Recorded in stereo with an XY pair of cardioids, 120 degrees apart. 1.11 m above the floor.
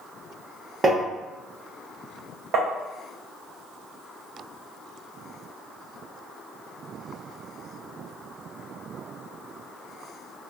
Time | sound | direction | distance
0.8 | tapping | 25° right | 0.8 m
2.5 | tapping | 55° right | 0.7 m